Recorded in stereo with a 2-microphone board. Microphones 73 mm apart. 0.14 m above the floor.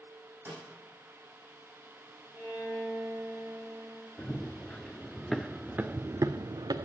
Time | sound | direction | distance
0.5 | a snare drum | 30° right (ahead or behind) | 5.5 m
2.3 | a violin | 5° right (ahead or behind) | 3 m
4.2 | running footsteps | 25° left (ahead or behind) | 1.2 m